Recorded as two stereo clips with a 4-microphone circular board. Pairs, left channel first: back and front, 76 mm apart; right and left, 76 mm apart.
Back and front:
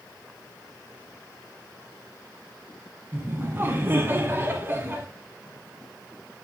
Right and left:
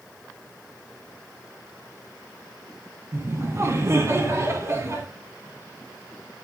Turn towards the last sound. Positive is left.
turn(degrees=50)